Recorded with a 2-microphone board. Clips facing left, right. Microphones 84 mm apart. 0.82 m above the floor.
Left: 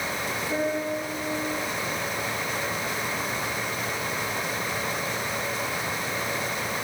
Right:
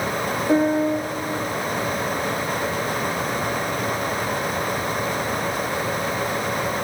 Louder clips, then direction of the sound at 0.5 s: Right 9 dB; 55° right (ahead or behind).